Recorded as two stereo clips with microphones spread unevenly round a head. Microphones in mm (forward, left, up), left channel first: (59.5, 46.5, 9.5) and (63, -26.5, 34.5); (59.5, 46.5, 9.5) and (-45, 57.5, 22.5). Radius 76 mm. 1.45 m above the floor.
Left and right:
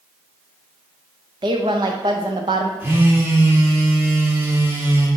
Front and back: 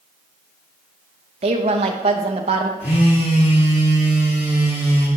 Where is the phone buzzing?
40° right, 1.7 m.